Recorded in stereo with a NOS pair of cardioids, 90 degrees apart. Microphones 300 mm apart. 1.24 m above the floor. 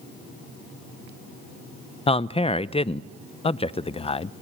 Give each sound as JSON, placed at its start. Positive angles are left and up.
{"t": 2.1, "sound": "a man speaking", "azimuth_deg": 20, "distance_m": 0.6}